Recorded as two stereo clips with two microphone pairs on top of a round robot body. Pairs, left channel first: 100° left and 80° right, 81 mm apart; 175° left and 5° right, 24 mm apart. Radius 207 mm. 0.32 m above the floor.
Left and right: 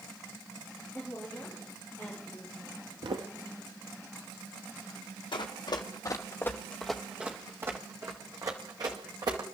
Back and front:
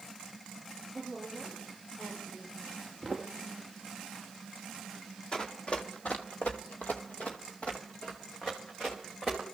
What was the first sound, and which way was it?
A woman speaking, 175° left.